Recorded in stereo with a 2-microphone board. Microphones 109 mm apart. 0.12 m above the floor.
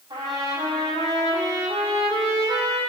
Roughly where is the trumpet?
Right.